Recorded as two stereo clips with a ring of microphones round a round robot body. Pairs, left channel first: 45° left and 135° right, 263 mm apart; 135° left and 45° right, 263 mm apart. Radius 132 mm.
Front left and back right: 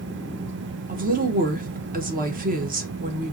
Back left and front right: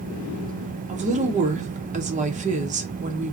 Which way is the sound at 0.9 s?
95° right.